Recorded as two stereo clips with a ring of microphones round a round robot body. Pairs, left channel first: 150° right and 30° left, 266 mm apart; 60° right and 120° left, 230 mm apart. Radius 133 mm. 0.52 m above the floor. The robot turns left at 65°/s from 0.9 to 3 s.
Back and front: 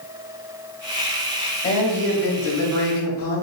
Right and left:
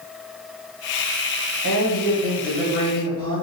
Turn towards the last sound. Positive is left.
turn(degrees=180)